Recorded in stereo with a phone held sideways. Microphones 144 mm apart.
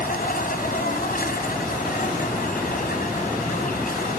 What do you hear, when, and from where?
0.0 s an insect: 85° left